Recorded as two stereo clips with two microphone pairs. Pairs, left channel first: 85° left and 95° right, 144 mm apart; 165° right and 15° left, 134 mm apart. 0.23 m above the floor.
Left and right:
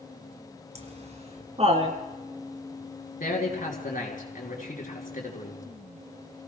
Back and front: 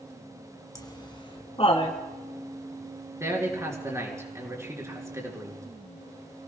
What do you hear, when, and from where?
0.8 s laughter: 110° right, 2 m; by 2.0 s 130° right, 3 m
3.2 s a man speaking: 80° left, 4 m